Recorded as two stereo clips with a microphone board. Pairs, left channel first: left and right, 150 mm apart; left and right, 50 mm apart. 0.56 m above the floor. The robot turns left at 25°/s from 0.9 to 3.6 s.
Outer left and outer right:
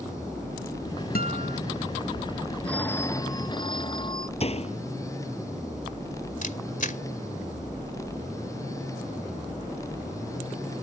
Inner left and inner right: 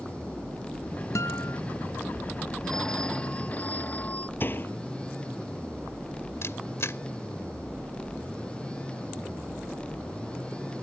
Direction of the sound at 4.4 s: 45° left (ahead or behind).